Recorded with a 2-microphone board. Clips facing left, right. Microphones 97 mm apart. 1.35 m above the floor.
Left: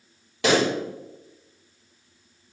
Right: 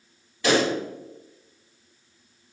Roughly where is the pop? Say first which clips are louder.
Left 1 dB; left.